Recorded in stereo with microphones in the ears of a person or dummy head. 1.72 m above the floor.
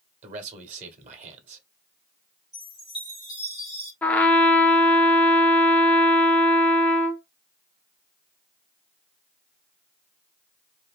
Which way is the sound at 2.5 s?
Centre (ahead or behind).